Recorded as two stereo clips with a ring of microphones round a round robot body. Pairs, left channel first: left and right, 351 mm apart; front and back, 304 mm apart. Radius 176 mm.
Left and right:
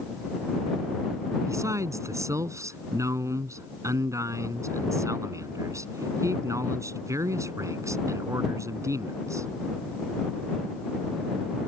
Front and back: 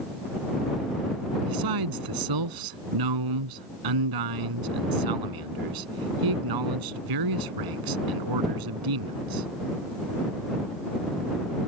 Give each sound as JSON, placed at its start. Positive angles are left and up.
{"t": 1.5, "sound": "a man speaking", "azimuth_deg": -170}